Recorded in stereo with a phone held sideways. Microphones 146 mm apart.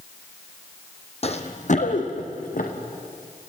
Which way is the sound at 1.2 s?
45° left (ahead or behind).